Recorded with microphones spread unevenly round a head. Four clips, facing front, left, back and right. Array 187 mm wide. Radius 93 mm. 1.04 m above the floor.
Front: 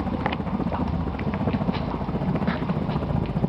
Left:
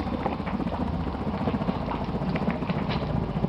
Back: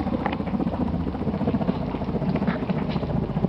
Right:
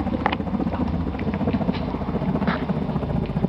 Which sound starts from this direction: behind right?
A helicopter, at 0.0 s.